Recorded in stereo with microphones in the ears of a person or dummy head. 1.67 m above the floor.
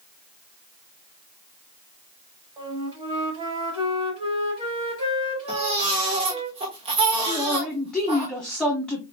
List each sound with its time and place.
2.6 s a flute: 25° right (ahead or behind), 4 m
5.5 s a baby crying: 25° right (ahead or behind), 1.2 m
7.3 s a man speaking: 5° left (ahead or behind), 1.0 m